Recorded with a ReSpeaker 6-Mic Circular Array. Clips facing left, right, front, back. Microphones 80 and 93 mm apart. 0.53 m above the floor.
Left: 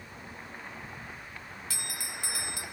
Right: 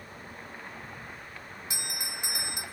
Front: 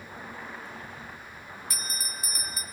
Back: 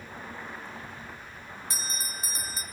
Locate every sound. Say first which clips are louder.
1.7 s a bell: right 2 dB, back 1 dB; 140° right, 1.2 m